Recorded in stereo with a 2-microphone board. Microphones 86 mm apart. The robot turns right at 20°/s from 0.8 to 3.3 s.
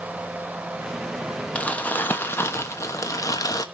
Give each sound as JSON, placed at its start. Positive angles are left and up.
{"t": 1.6, "sound": "crumpling", "azimuth_deg": 20, "distance_m": 1.2}